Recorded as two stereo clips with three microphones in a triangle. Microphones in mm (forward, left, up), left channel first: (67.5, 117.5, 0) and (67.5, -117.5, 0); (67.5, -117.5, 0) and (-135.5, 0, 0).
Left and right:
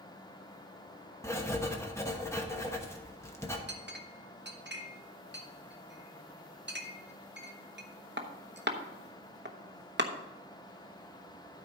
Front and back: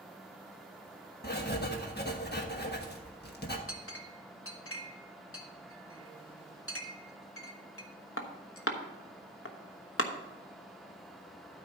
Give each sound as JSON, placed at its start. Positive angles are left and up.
{"t": 1.2, "sound": "writing", "azimuth_deg": 10, "distance_m": 1.2}
{"t": 3.7, "sound": "a clink", "azimuth_deg": -50, "distance_m": 1.0}